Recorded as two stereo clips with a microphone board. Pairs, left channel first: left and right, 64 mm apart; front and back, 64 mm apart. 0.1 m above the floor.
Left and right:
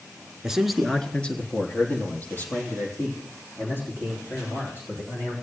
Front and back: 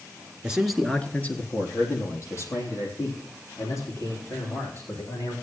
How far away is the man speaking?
About 1.2 m.